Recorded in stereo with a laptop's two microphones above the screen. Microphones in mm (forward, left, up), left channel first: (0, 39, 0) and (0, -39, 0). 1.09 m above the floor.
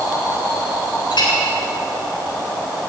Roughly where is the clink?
Left.